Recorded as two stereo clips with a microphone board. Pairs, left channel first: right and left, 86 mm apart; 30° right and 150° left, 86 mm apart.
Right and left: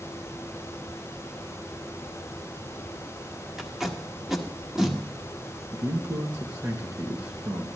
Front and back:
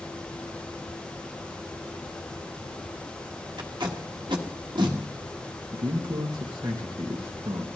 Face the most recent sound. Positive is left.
turn(degrees=130)